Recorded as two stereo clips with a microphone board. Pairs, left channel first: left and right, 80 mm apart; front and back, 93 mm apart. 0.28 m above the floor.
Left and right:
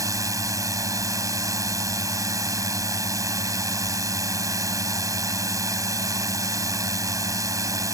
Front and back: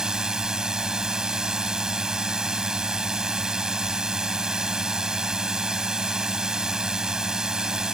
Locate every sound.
0.0 s a drone: 100° right